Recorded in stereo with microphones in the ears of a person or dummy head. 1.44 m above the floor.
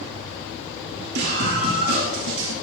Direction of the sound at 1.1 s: 55° right (ahead or behind).